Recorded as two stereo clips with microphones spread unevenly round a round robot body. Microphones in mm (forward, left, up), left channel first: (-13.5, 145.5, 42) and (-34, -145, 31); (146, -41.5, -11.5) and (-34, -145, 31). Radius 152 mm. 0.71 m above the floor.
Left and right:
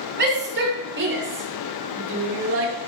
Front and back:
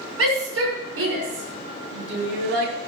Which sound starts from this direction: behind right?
A shout, at 0.2 s.